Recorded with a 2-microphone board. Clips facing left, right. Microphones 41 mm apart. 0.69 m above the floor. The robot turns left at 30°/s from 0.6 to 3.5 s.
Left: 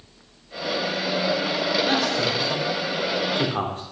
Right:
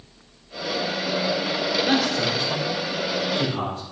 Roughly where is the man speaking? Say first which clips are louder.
Even; centre.